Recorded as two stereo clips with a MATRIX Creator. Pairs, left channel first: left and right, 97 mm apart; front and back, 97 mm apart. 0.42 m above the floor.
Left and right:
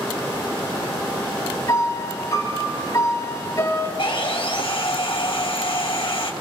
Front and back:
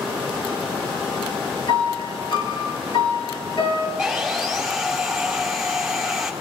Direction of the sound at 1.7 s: 35° left.